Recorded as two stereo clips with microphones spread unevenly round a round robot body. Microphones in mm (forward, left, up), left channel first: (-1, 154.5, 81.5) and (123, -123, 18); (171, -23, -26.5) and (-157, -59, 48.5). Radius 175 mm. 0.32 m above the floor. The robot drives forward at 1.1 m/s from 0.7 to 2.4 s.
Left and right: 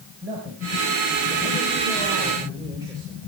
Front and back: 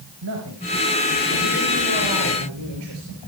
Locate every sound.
0.2 s a man speaking: 130° right, 4.5 m; by 3.3 s 145° right, 6 m